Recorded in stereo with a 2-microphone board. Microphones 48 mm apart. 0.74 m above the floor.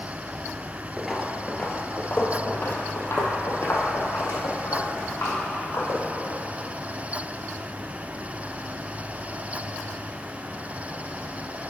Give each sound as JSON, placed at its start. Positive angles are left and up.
{"t": 1.0, "sound": "footsteps", "side_deg": -5, "distance_m": 0.8}